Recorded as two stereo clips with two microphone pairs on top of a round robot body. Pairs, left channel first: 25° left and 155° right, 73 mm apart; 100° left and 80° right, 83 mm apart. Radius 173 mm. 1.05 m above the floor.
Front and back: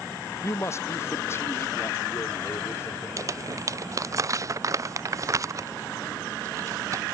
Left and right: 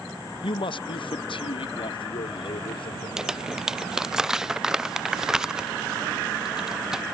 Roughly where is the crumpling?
Behind right.